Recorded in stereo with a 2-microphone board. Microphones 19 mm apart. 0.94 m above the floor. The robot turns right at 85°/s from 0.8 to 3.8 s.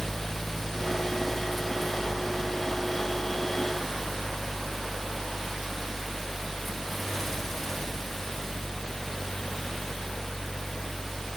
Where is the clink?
I don't hear a clink.